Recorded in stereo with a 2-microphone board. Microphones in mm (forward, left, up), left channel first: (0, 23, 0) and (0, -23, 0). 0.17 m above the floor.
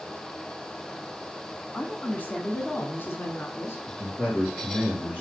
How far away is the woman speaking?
About 1.1 m.